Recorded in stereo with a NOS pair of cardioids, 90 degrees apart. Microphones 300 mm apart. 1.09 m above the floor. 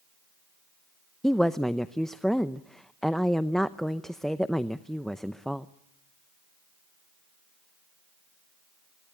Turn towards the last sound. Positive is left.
turn(degrees=0)